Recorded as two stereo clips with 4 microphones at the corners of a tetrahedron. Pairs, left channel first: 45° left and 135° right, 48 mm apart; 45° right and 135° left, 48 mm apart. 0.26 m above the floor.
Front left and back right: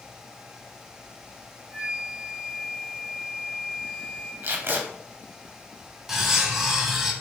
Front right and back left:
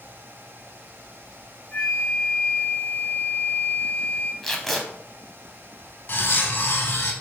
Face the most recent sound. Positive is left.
turn(degrees=-55)